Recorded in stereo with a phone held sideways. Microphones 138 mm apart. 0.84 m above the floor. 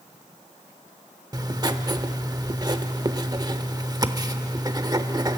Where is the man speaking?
No man speaking in this recording.